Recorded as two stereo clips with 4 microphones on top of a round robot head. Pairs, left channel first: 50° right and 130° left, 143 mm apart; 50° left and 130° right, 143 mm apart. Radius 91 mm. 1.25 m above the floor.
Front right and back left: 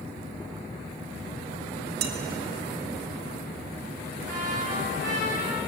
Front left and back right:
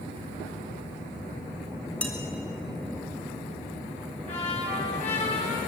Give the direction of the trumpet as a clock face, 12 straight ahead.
9 o'clock.